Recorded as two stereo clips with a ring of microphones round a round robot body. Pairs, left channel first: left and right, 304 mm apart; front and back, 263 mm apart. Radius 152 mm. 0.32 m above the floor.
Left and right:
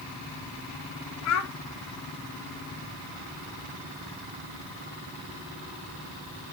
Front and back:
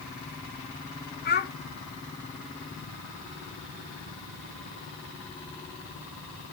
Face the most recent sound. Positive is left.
turn(degrees=55)